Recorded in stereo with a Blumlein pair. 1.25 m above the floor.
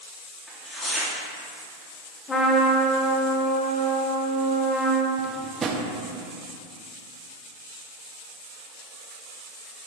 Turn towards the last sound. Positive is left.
turn(degrees=-20)